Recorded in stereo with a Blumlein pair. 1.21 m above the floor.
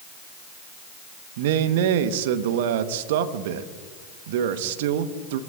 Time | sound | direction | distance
1.4 | a man speaking | 50° right | 1.2 m